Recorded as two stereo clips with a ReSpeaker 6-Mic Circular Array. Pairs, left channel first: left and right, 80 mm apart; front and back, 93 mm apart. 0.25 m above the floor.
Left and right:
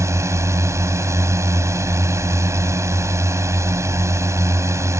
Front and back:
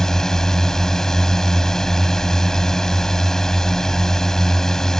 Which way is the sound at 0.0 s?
80° right.